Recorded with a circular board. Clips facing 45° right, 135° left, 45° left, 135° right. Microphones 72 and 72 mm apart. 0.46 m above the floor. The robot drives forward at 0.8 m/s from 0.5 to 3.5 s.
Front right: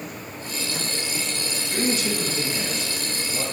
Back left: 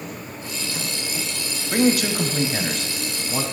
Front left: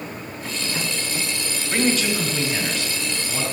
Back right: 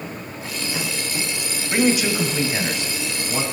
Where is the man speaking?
145° left, 2 m; by 3.4 s 160° left, 3.5 m.